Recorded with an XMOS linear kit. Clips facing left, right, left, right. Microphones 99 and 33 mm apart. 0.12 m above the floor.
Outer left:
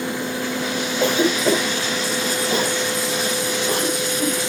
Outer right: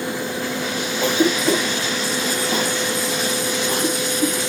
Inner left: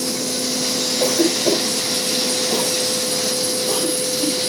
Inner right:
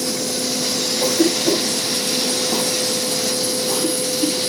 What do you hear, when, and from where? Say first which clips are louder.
1.0 s a cough: even, even; 40° left (ahead or behind), 3 m